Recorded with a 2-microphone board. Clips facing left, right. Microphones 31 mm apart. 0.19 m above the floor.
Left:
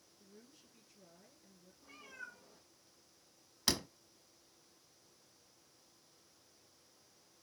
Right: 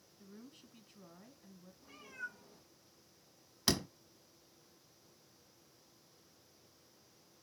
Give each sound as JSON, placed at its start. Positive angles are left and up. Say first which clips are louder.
{"t": 0.2, "sound": "a woman speaking", "louder": "right 6 dB", "side_deg": -50, "distance_m": 1.6}
{"t": 1.8, "sound": "a cat meowing", "louder": "right 4 dB", "side_deg": 5, "distance_m": 3.5}
{"t": 3.7, "sound": "a door slam", "louder": "right 2 dB", "side_deg": 5, "distance_m": 0.8}